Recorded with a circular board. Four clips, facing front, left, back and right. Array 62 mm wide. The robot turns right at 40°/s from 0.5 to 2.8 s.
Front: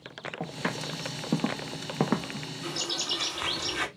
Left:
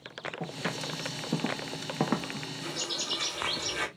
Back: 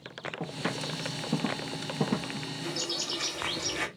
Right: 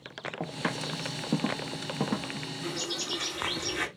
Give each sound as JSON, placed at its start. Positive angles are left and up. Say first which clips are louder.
{"t": 0.4, "sound": "footsteps", "louder": "right 3 dB, front 1 dB", "azimuth_deg": -65, "distance_m": 1.6}
{"t": 2.6, "sound": "a bird", "louder": "right 2 dB, front 3 dB", "azimuth_deg": 0, "distance_m": 1.9}